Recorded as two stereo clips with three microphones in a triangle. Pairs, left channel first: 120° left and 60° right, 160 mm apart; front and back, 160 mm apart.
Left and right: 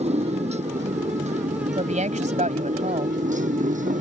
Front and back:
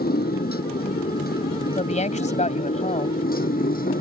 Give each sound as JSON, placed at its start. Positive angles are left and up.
{"t": 0.0, "sound": "a motorcycle", "azimuth_deg": -15}
{"t": 1.8, "sound": "a woman speaking", "azimuth_deg": -30}